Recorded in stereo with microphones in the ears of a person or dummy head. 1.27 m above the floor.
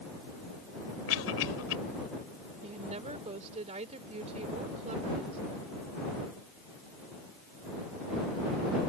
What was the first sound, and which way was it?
A cough, 85° left.